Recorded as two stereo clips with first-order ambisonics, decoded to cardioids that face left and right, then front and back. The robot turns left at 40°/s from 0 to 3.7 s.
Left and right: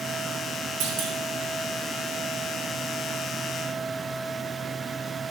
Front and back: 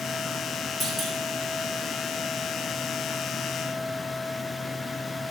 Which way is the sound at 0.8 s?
85° right.